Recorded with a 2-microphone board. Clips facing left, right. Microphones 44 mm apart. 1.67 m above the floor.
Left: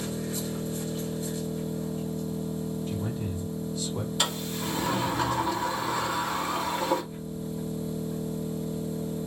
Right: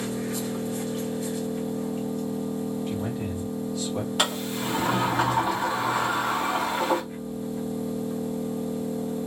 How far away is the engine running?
About 1.8 m.